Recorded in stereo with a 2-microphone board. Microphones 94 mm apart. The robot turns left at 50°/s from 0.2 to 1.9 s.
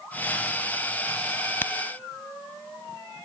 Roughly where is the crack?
Left.